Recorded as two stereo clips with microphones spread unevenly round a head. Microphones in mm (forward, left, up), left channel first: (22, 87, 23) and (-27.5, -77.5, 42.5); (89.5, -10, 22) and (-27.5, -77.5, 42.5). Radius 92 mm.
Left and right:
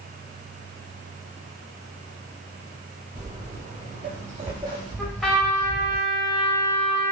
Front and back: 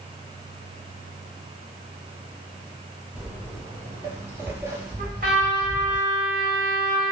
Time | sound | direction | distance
3.1 | footsteps | 80° right | 1.6 m
5.0 | a trumpet | 160° left | 0.9 m